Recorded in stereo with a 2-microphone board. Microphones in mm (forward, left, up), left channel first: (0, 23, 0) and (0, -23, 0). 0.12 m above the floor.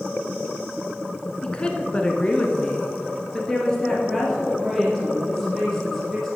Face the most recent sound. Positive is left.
turn(degrees=10)  # may be behind; listen again after turning